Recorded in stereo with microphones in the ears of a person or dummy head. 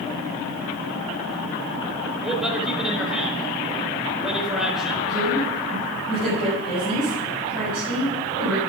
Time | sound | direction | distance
2.2 | a man speaking | centre (ahead or behind) | 3.5 m
5.1 | a woman speaking | 30° right (ahead or behind) | 7 m